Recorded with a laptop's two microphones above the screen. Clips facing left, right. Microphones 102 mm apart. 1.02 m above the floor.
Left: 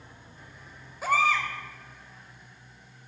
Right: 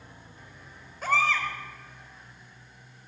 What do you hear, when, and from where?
1.0 s a baby crying: 5° left (ahead or behind), 2.5 m